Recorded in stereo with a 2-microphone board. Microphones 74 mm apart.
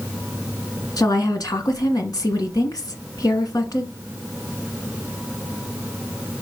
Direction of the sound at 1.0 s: 60° left (ahead or behind).